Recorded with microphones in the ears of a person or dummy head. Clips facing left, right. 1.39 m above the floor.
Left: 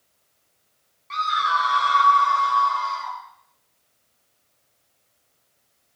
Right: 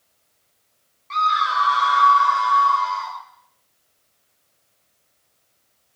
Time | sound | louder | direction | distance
1.1 | a scream | right 2 dB | 5° left (ahead or behind) | 1.0 m